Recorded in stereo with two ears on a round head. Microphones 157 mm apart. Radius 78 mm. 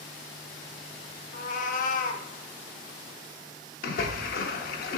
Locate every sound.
1.3 s a cat meowing: 50° left (ahead or behind), 0.6 m
3.8 s a splash: 55° left (ahead or behind), 0.9 m